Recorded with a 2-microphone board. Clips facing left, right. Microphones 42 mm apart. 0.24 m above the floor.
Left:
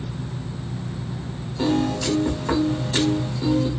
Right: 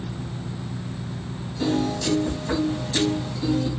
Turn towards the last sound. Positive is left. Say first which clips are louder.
# left 2 dB
turn(degrees=45)  # may be behind; listen again after turning